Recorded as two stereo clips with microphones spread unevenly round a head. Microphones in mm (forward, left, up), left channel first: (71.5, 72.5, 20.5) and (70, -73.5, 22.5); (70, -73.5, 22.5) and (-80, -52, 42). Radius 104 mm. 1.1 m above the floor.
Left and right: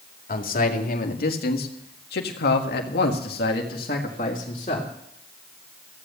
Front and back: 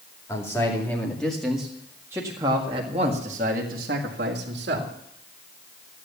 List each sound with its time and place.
0.3 s a man speaking: 65° left, 2.5 m; by 4.9 s 145° left, 2 m